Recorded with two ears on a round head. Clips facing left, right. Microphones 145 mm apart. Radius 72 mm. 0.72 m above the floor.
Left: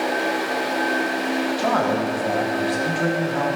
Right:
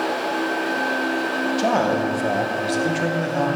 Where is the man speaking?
25° right (ahead or behind), 0.8 m.